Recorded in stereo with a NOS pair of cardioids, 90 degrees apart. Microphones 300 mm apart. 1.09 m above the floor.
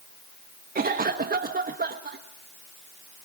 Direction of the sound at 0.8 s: 30° right.